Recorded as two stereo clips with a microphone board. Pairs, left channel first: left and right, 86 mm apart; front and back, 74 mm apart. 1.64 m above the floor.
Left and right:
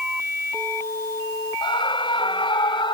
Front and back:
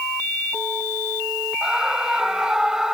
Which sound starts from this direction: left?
A scream, at 1.6 s.